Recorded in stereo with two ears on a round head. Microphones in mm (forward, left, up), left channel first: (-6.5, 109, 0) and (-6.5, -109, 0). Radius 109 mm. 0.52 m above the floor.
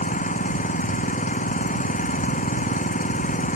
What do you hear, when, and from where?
0.0 s an engine running: 35° left (ahead or behind)